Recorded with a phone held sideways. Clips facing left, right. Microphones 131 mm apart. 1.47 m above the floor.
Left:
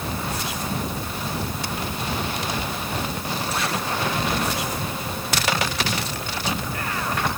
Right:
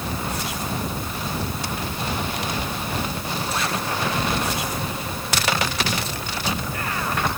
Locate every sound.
Only background noise.